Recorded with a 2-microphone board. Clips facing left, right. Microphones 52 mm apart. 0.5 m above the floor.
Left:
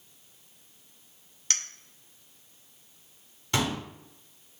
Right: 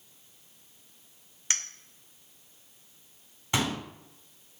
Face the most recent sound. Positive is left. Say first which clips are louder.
# left 1 dB
turn(degrees=-20)  # may be behind; listen again after turning